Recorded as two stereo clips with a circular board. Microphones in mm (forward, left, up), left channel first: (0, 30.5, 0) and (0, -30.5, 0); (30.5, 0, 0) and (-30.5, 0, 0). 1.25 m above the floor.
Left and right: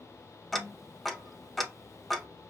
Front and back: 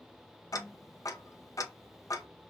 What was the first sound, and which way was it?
Ticking, 5° left.